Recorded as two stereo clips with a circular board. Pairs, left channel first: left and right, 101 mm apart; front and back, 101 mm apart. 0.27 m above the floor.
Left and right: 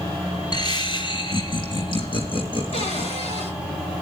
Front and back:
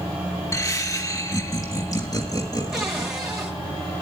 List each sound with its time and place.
0.5 s laughter: 55° left, 2 m
2.7 s a cupboard door: 95° left, 9 m